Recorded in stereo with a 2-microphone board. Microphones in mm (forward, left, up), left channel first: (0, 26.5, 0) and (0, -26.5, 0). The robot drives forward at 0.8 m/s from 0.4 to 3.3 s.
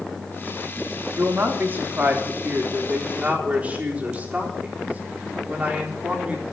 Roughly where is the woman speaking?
Right.